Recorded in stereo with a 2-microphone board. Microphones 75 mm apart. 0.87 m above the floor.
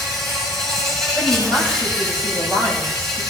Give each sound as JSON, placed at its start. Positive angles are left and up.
{"t": 0.0, "sound": "an insect", "side_deg": 5, "distance_m": 7.5}
{"t": 1.1, "sound": "a woman speaking", "side_deg": 25, "distance_m": 6.5}